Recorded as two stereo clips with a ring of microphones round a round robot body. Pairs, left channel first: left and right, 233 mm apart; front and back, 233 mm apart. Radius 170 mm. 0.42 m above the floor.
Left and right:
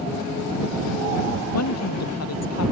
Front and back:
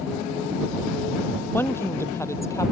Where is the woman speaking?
80° left; by 2.7 s 75° left.